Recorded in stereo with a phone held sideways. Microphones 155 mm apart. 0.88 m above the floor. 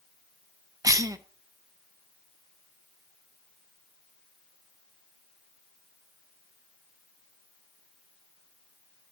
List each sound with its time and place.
0.8 s a cough: 20° right (ahead or behind), 0.8 m